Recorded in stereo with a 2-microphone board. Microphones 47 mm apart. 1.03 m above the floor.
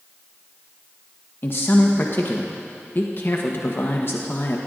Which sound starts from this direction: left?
A man speaking, at 1.4 s.